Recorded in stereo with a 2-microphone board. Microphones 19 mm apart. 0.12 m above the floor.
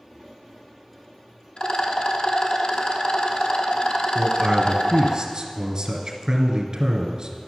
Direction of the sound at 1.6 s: 70° left (ahead or behind).